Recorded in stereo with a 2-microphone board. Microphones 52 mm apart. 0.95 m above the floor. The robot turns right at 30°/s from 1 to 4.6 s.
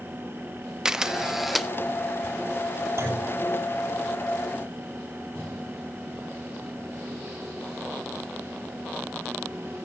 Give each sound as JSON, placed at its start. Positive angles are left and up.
{"t": 0.8, "sound": "a camera shutter", "side_deg": -10, "distance_m": 0.6}
{"t": 3.0, "sound": "a clunk", "side_deg": -50, "distance_m": 6.0}